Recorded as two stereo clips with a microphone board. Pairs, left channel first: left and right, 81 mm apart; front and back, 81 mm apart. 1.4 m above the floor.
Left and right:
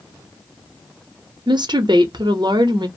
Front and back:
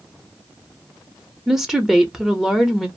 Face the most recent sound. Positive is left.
turn(degrees=-95)